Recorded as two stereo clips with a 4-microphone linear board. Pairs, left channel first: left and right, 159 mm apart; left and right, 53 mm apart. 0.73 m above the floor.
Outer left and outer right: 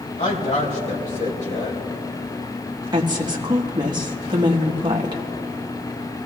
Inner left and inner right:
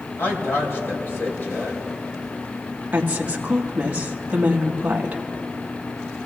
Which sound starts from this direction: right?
A woman speaking, at 2.9 s.